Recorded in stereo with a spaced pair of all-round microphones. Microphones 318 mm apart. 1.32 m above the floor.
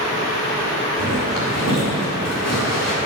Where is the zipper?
85° left, 3.5 m.